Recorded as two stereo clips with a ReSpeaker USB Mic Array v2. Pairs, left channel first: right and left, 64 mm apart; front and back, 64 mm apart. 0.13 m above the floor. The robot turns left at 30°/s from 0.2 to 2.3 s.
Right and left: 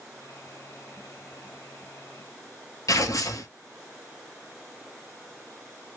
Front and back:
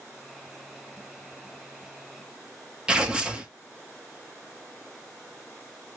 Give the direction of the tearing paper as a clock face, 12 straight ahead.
3 o'clock.